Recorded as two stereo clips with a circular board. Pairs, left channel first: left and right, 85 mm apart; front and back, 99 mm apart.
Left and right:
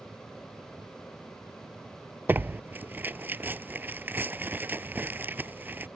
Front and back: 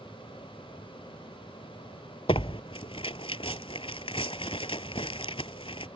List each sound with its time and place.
2.3 s tearing paper: 20° right